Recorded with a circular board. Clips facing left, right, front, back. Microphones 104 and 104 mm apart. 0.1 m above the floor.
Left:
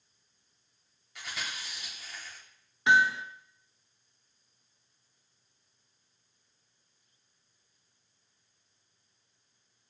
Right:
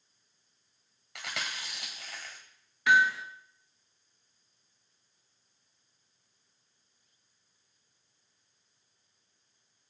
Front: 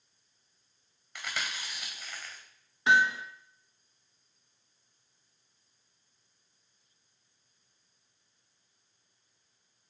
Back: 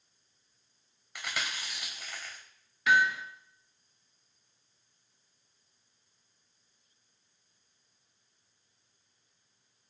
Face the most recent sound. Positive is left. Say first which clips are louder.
# even, front 1 dB
turn(degrees=45)